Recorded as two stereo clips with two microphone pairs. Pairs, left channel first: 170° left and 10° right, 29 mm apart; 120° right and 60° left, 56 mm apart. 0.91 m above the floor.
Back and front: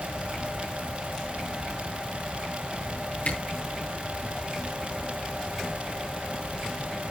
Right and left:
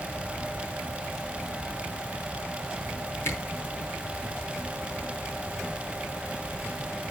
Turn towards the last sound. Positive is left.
turn(degrees=-160)